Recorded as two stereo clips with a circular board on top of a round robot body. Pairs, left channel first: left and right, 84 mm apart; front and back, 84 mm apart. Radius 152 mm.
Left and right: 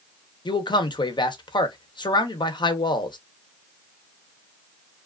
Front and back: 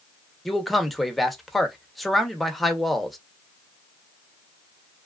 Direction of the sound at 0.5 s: 90° left.